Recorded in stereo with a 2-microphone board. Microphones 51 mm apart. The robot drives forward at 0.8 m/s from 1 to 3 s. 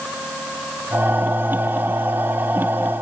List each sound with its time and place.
Only background noise.